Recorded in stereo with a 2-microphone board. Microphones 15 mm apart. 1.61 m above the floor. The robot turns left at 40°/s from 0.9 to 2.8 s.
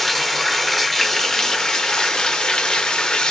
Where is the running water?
160° left, 0.9 m; by 3.3 s 85° left, 0.9 m.